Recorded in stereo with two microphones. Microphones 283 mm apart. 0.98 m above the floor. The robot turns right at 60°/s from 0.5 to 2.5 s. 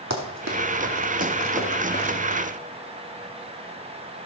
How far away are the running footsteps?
About 2 m.